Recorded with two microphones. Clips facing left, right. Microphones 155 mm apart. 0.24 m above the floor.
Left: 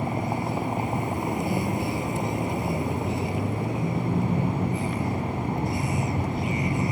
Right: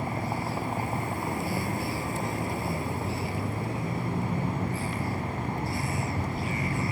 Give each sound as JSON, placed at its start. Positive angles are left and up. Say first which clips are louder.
{"t": 0.0, "sound": "a vehicle", "louder": "left 4 dB", "side_deg": 20}